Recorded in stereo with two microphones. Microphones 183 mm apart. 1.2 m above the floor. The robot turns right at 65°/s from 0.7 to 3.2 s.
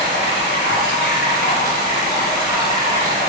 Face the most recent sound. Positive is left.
turn(degrees=-125)